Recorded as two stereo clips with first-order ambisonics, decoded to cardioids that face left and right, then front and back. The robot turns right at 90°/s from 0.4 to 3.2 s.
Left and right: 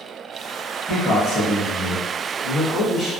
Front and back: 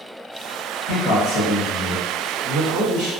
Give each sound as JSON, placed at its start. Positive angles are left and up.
{"t": 0.9, "sound": "a man speaking", "azimuth_deg": -10, "distance_m": 1.4}